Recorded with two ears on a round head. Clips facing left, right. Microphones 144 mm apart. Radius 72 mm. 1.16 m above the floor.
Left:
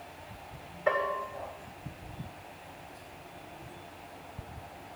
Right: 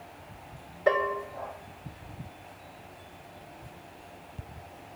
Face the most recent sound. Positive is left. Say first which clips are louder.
# right 4 dB
turn(degrees=-50)  # may be behind; listen again after turning